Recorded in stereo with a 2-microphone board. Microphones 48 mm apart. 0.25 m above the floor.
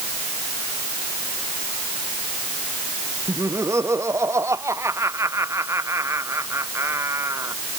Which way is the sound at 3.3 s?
80° right.